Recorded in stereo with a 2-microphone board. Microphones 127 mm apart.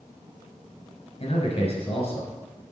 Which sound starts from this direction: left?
A man speaking, at 1.2 s.